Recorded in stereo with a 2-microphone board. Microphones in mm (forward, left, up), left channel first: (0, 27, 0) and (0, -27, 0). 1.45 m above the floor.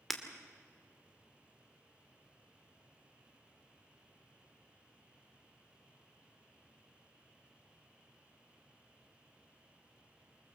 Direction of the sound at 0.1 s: Centre (ahead or behind).